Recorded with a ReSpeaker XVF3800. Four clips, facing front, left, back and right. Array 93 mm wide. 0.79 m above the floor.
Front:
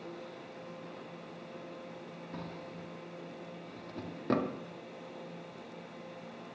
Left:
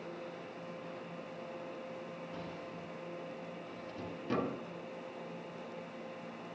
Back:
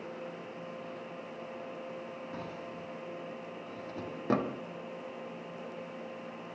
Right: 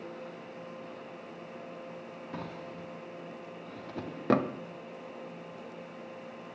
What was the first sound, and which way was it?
A drawer, 100° right.